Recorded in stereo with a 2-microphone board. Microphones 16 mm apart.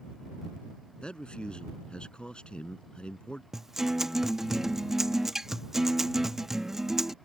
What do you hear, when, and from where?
1.0 s a man speaking: 80° left
3.5 s a guitar: 25° right (ahead or behind)